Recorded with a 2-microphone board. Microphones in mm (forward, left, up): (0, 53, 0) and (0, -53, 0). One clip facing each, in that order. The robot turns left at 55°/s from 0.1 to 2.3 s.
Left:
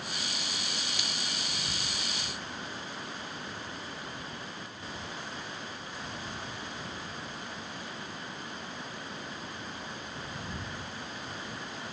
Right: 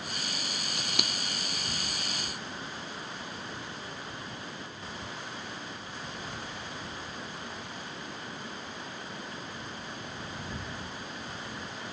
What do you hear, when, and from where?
0.8 s scissors: 75° right (ahead or behind); by 1.1 s 65° right (ahead or behind)